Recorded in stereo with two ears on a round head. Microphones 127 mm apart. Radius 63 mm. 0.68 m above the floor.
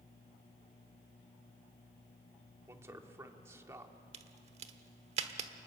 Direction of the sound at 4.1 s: 50° right (ahead or behind).